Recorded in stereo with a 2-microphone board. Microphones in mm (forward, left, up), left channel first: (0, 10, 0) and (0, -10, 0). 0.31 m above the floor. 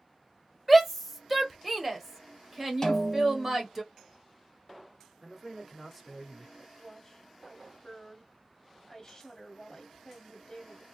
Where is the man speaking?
5° right (ahead or behind), 0.9 m.